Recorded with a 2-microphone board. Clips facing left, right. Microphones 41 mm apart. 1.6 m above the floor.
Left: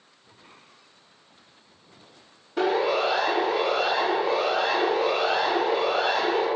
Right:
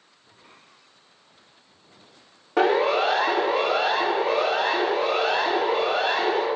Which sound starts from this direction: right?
A siren, at 2.6 s.